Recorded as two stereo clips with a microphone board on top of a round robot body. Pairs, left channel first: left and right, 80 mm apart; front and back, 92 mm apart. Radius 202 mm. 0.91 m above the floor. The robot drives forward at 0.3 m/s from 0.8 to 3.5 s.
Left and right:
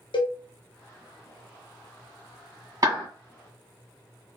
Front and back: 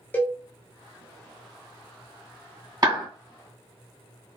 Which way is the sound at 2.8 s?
135° right.